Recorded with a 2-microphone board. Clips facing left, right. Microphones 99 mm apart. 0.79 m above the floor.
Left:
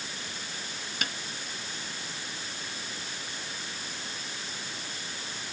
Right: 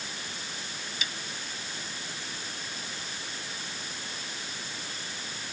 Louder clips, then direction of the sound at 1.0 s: Left 4 dB; 55° left (ahead or behind).